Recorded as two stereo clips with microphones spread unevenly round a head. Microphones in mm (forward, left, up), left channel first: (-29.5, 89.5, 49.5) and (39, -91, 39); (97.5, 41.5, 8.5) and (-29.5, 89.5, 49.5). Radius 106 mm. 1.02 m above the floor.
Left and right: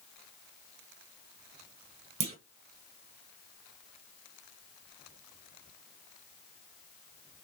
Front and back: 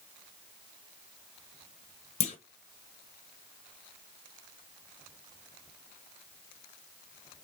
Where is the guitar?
No guitar in this recording.